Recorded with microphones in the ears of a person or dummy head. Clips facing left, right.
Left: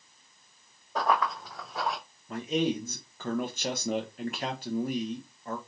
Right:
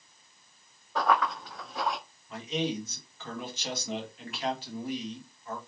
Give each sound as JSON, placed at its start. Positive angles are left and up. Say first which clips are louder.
{"t": 0.9, "sound": "running footsteps", "louder": "right 1 dB", "side_deg": 15, "distance_m": 2.0}
{"t": 2.3, "sound": "a man speaking", "louder": "left 4 dB", "side_deg": 45, "distance_m": 0.7}